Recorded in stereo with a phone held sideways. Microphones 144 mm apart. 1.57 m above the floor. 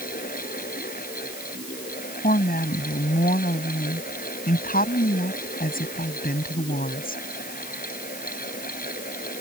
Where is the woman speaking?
90° left.